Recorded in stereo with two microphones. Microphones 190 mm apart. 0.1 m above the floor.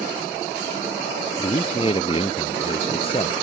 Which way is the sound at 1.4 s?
30° left (ahead or behind).